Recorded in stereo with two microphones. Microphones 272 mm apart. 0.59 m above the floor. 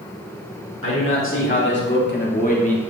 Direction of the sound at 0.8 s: 50° left (ahead or behind).